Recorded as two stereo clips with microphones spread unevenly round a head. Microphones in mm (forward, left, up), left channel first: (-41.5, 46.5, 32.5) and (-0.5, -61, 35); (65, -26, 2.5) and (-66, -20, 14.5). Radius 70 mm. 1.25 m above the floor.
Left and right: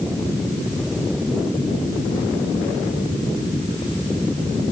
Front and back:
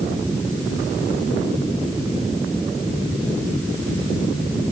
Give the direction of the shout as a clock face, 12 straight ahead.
No shout in this recording.